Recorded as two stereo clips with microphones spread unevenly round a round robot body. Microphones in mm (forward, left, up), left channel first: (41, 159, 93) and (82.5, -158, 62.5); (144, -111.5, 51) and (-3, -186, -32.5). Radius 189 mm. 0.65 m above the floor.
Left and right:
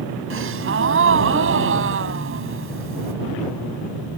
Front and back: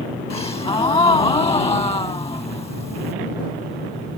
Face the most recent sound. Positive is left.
turn(degrees=-30)